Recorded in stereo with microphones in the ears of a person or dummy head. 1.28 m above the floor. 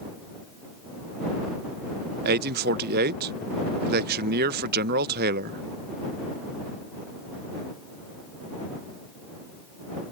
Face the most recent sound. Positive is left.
turn(degrees=-45)  # may be behind; listen again after turning